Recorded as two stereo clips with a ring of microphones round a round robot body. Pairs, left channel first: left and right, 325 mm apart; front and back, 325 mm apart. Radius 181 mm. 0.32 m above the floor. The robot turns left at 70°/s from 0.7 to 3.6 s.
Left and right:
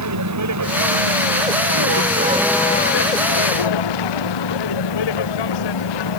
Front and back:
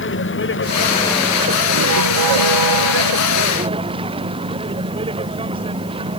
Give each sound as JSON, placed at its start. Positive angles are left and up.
{"t": 0.0, "sound": "a vehicle", "azimuth_deg": -55}